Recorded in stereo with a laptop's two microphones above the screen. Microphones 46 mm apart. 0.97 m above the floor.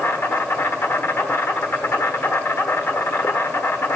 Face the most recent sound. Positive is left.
turn(degrees=65)  # may be behind; listen again after turning